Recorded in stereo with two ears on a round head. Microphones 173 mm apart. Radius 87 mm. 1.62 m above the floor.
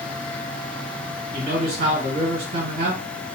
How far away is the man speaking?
About 1.7 m.